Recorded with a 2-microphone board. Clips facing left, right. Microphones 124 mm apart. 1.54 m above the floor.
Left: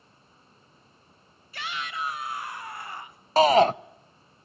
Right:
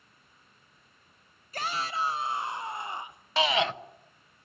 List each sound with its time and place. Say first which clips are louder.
1.5 s a shout: right 3 dB; 45° right (ahead or behind), 0.6 m; by 3.3 s 20° right (ahead or behind), 1.6 m
3.4 s a shout: left 9 dB; 40° left (ahead or behind), 0.6 m